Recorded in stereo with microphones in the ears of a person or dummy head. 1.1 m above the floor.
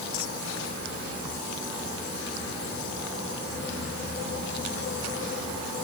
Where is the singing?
I don't hear singing.